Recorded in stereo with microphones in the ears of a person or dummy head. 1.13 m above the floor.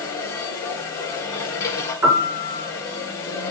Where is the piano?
5° right (ahead or behind), 2.5 m.